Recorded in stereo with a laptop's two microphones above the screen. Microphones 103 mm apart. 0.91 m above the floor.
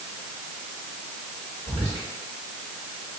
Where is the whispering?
65° right (ahead or behind), 1.7 m.